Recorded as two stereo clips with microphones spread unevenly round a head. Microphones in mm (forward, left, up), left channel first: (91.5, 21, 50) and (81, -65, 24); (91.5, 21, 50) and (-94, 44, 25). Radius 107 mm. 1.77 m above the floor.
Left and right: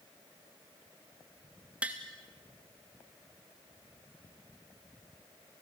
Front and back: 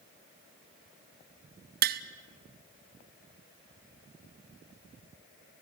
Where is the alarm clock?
I don't hear an alarm clock.